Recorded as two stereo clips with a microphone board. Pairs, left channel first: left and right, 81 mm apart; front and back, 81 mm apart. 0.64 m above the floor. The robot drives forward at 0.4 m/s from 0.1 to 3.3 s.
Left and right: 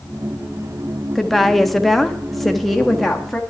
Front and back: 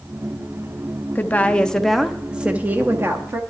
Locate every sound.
1.1 s a woman speaking: 5° left, 0.8 m; by 3.4 s straight behind, 0.9 m